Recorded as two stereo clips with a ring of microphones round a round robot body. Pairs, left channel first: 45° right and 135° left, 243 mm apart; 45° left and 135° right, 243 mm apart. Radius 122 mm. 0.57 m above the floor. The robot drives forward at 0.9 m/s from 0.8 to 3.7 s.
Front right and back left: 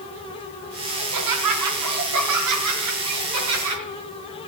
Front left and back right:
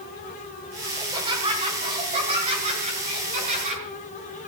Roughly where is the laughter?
Behind left.